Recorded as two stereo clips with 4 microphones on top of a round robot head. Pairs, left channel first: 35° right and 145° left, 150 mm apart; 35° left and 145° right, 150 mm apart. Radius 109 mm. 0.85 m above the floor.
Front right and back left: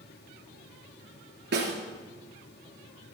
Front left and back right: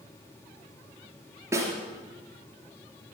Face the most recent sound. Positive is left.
turn(degrees=145)